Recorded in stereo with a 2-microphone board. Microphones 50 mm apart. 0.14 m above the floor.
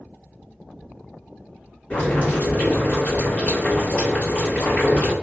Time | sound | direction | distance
1.9 | boiling | 30° left (ahead or behind) | 1.8 m